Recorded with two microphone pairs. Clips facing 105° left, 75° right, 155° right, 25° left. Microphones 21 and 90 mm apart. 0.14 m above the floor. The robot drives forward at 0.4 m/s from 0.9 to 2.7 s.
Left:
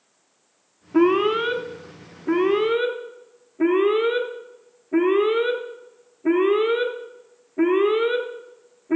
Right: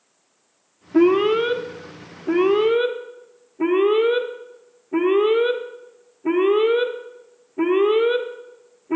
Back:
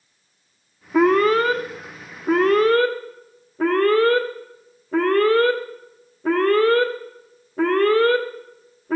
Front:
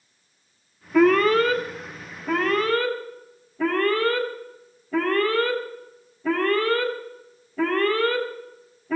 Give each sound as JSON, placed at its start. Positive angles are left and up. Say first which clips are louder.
{"t": 0.9, "sound": "an alarm", "louder": "right 2 dB, back 1 dB", "azimuth_deg": 165, "distance_m": 1.0}